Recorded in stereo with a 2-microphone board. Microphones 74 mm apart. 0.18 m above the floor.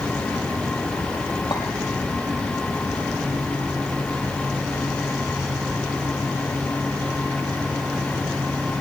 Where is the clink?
75° left (ahead or behind), 4 m.